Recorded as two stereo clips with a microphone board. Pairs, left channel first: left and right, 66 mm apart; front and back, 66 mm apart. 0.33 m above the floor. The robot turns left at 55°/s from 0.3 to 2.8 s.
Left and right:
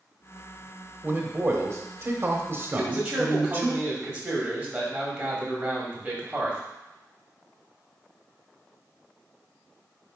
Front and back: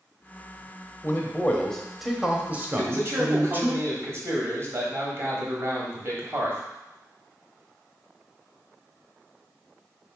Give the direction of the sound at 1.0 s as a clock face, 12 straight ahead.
1 o'clock.